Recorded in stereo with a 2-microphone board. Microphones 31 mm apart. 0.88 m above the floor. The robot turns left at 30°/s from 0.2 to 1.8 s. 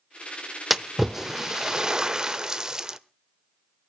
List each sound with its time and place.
0.7 s a splash: 5° right (ahead or behind), 0.6 m; by 3.0 s 20° right (ahead or behind), 0.6 m